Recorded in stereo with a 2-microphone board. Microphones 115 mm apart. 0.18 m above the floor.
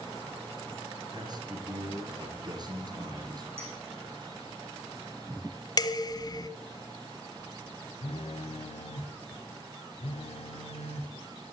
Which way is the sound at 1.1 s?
40° right (ahead or behind).